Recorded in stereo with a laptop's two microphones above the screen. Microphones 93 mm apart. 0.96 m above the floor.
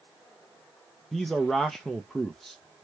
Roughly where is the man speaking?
Centre.